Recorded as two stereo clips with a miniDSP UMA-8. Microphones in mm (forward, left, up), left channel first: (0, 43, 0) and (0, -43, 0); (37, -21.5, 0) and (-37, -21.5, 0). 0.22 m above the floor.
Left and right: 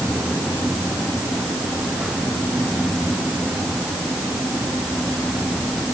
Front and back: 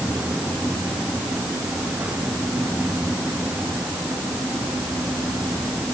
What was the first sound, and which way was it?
Only background noise.